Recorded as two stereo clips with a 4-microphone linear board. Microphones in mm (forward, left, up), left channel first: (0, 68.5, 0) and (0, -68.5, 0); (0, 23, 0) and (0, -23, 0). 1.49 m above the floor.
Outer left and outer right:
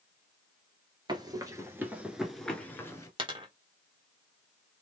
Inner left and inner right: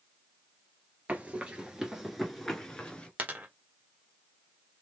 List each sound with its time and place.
1.1 s running footsteps: 30° right (ahead or behind), 1.7 m; by 3.1 s 25° left (ahead or behind), 1.5 m
3.2 s a dropped coin: 35° right (ahead or behind), 1.2 m